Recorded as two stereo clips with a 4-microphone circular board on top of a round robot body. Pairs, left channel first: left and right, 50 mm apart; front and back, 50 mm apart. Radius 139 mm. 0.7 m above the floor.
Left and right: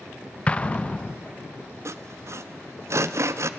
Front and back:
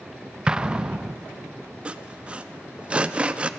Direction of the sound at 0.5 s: 125° left.